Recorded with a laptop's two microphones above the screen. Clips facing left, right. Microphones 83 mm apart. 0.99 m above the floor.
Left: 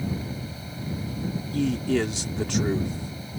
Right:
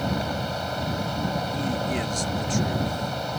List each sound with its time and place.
0.0 s a fan: 80° right
1.5 s a man speaking: 70° left (ahead or behind)